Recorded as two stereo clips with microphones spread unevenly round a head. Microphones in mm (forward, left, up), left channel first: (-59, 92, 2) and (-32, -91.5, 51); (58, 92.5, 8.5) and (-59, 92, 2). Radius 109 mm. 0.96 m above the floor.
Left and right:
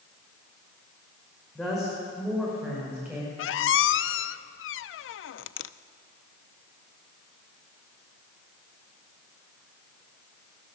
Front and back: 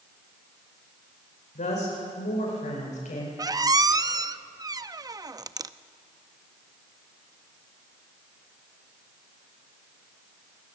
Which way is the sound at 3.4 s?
120° left.